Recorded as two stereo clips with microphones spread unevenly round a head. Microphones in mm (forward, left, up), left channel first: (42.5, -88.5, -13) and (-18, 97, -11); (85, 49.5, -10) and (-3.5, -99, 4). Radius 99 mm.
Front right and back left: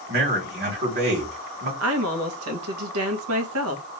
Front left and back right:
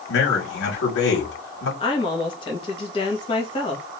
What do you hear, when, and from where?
0.1 s a man speaking: 70° left, 3 m
1.8 s a woman speaking: 125° left, 1.3 m